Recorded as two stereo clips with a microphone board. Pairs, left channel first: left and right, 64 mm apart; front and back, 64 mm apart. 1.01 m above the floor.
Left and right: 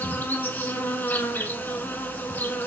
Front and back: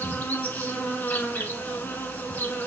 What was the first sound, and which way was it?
An insect, 45° left.